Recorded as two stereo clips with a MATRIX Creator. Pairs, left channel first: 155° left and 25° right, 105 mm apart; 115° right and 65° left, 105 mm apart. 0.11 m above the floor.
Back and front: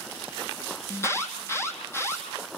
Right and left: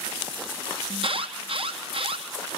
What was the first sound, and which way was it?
An alarm, 95° left.